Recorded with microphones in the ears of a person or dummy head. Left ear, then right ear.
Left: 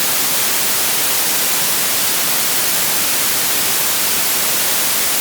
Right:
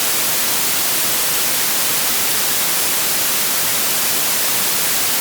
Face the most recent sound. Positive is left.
No sound to turn to.